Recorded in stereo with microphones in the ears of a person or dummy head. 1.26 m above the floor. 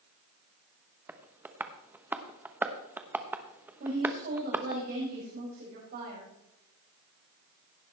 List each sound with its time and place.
1.1 s tapping: 10° right (ahead or behind), 0.8 m
3.8 s a woman speaking: 50° right (ahead or behind), 6 m